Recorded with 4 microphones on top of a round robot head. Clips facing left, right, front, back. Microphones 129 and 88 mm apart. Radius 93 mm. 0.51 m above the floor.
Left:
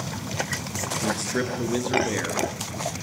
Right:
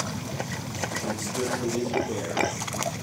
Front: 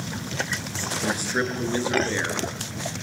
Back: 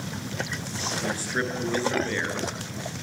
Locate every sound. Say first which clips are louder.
1.0 s a man speaking: left 4 dB, front 4 dB; 75° left, 8 m